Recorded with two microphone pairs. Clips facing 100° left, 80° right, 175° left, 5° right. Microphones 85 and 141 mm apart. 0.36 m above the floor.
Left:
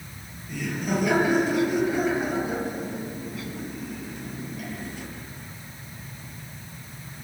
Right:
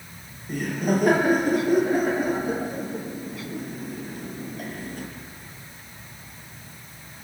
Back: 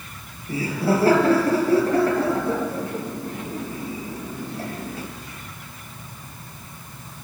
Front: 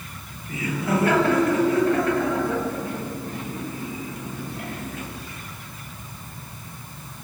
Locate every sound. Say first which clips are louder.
0.5 s laughter: right 4 dB, back 3 dB; 125° right, 6 m